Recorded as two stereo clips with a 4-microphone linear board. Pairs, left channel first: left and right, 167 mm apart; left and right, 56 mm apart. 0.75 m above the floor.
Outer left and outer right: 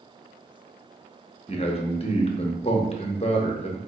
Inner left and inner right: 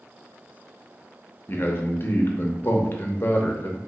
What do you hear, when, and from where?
1.5 s a man speaking: 35° left (ahead or behind), 0.8 m